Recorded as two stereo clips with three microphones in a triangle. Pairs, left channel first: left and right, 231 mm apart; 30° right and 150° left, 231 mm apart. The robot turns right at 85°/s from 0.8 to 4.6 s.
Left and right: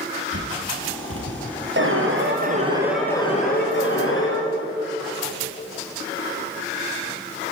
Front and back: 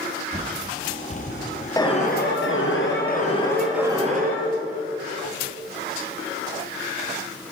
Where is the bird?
115° right, 4.5 m; by 1.5 s 55° right, 4.5 m.